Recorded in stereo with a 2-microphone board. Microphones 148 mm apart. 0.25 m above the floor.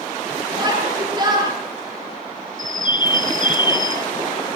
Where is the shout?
30° right (ahead or behind), 6 m.